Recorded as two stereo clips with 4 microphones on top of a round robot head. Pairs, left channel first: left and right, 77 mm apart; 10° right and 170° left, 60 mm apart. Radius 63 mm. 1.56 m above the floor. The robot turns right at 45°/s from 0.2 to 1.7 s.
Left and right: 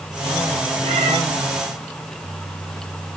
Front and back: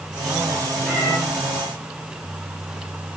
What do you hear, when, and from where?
0.8 s a cat meowing: 100° right, 5.5 m; by 1.2 s 85° right, 5.5 m